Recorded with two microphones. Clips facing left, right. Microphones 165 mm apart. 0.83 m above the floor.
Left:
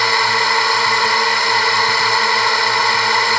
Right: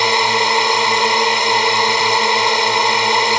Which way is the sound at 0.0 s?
20° right (ahead or behind).